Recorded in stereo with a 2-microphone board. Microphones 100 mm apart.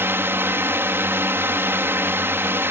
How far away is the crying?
No crying in this recording.